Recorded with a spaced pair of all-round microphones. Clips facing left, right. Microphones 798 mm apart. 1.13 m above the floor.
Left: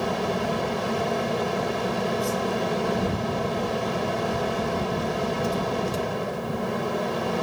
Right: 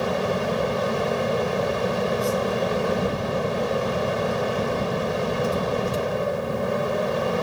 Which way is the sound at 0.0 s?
20° right (ahead or behind).